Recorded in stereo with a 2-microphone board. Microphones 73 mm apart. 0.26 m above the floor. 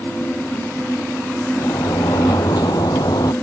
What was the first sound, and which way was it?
A sliding door, 70° left (ahead or behind).